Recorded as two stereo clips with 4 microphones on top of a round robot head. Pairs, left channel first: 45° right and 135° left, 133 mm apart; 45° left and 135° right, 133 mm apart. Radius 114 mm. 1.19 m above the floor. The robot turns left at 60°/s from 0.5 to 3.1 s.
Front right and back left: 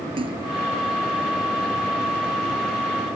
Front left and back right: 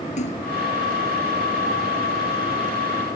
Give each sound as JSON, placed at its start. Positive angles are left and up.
{"t": 0.2, "sound": "a splash", "azimuth_deg": 85}